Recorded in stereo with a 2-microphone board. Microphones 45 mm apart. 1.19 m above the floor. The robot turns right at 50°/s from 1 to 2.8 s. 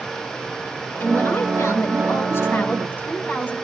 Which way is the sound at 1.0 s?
45° left.